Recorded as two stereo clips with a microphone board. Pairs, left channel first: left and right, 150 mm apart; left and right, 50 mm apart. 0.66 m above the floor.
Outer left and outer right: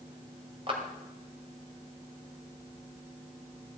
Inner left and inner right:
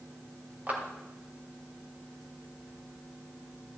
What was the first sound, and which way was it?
A clap, 35° right (ahead or behind).